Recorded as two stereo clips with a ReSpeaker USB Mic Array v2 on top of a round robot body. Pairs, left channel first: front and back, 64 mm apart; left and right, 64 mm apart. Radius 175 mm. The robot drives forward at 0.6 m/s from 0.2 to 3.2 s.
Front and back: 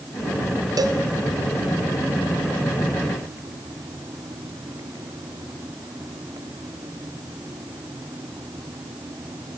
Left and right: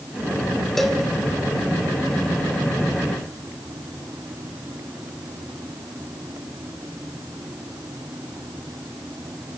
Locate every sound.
0.8 s a cowbell: 175° left, 2.0 m